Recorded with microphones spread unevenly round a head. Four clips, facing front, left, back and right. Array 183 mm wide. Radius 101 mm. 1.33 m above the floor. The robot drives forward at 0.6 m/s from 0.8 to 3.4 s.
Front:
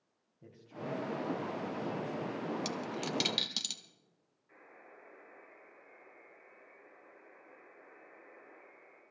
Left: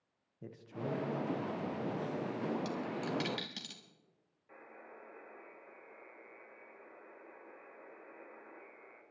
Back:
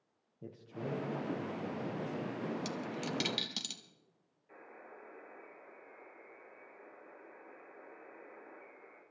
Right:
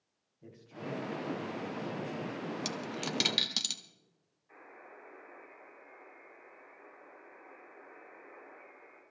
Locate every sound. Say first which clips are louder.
0.4 s a man speaking: left 2 dB, back 1 dB; 145° left, 1.7 m; by 2.5 s 160° left, 2.5 m
2.6 s a dropped coin: even, front 1 dB; 80° right, 0.7 m; by 3.8 s 140° right, 0.8 m
4.5 s a buzzer: right 1 dB, back 4 dB; 130° left, 6.5 m